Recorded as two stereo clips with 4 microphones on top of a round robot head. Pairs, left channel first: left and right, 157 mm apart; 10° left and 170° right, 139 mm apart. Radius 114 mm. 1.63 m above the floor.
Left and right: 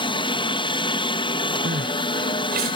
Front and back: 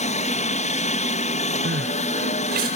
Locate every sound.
0.0 s a helicopter: 35° left
1.6 s crying: 135° right